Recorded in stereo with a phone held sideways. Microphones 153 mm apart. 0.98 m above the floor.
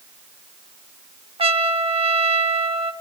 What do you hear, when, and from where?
1.4 s a trumpet: 35° right (ahead or behind), 0.8 m